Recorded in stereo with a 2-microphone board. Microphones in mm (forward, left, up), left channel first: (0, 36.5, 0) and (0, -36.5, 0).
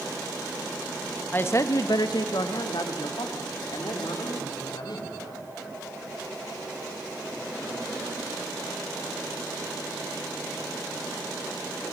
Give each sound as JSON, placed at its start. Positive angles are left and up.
{"t": 1.3, "sound": "a woman speaking", "side_deg": 25, "distance_m": 0.8}